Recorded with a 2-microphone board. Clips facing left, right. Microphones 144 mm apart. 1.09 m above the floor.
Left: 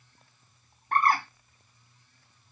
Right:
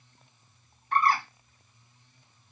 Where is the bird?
50° left (ahead or behind), 0.9 m.